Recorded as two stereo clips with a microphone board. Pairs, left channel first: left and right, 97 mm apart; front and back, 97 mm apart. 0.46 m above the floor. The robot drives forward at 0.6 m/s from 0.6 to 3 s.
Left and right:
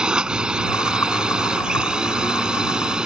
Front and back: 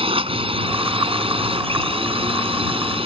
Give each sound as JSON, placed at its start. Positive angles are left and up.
{"t": 0.0, "sound": "a drone", "azimuth_deg": -170}